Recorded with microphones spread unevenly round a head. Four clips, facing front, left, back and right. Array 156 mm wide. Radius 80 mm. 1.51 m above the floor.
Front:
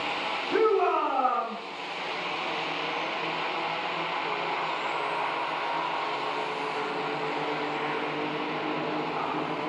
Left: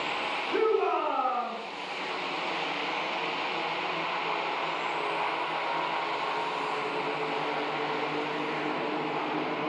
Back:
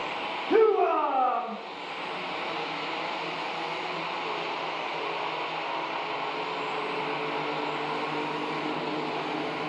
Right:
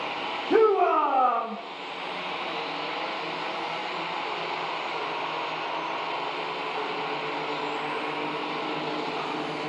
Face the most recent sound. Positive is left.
turn(degrees=-100)